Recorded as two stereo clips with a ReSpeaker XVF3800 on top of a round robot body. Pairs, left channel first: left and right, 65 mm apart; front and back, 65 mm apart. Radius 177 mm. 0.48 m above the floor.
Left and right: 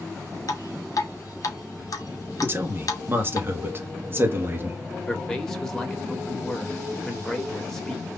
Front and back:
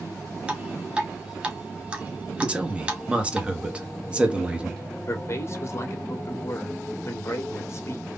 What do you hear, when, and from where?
0.5 s dripping: 110° left, 1.2 m
2.4 s a man speaking: 115° right, 1.3 m
5.1 s a man speaking: 10° left, 1.6 m